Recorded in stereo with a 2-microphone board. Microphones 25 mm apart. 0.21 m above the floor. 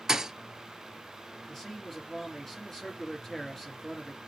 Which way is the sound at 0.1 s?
20° right (ahead or behind).